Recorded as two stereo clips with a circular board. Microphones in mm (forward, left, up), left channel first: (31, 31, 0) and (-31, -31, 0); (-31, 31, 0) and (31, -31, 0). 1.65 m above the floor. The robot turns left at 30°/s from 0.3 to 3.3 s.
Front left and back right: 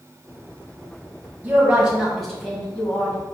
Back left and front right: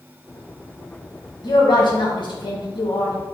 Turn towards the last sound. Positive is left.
turn(degrees=100)